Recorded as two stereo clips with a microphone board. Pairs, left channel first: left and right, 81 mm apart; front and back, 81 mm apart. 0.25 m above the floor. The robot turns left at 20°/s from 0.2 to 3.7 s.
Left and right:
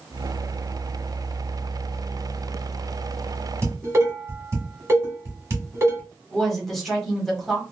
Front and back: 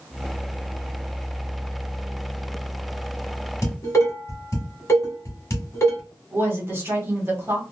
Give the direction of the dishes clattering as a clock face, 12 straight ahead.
1 o'clock.